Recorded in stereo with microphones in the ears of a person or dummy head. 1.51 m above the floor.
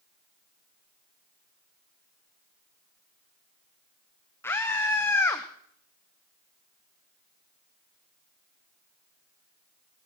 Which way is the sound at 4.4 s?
15° left (ahead or behind).